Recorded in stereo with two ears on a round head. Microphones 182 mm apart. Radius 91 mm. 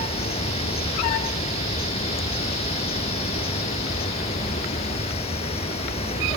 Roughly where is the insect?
Left.